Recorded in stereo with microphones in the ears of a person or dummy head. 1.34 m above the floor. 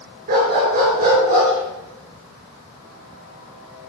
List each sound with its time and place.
0.3 s a dog barking: 50° right (ahead or behind), 6 m; by 3.9 s 30° right (ahead or behind), 6.5 m